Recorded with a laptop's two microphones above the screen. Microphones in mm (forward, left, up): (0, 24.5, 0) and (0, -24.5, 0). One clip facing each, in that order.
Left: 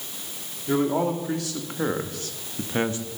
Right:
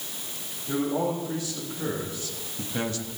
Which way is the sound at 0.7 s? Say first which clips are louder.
Left 4 dB; 75° left (ahead or behind).